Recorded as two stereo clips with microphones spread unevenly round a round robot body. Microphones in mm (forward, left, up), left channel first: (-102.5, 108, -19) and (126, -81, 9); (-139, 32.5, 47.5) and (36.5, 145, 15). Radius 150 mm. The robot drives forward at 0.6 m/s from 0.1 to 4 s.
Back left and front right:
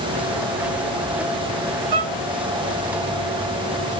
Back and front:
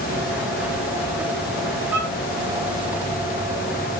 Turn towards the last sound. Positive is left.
turn(degrees=-120)